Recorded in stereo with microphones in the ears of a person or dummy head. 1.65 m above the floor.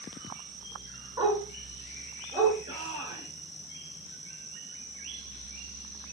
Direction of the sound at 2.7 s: 30° right (ahead or behind).